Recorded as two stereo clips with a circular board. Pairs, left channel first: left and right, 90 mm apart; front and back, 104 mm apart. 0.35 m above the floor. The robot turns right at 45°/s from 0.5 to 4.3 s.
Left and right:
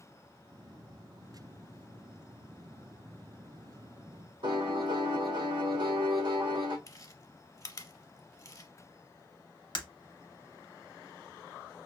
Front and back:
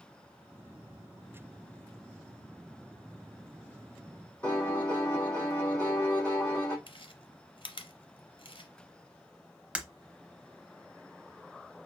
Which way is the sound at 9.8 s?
105° left.